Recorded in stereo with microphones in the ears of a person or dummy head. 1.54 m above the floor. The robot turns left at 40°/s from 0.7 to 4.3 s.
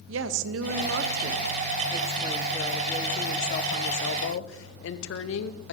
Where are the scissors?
No scissors in this recording.